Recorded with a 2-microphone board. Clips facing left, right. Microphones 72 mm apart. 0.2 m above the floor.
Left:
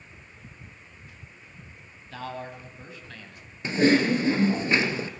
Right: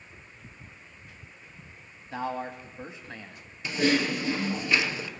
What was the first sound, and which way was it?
A man speaking, 25° right (ahead or behind).